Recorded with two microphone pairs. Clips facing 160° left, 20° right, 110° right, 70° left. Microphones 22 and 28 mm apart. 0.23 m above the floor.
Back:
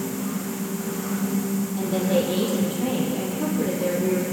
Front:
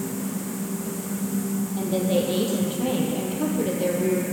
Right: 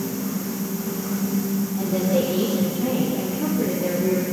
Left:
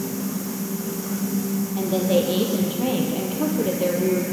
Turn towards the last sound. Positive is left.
turn(degrees=50)